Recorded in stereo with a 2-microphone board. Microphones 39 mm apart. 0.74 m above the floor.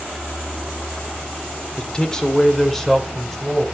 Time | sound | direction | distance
1.8 | a man speaking | 20° left (ahead or behind) | 1.9 m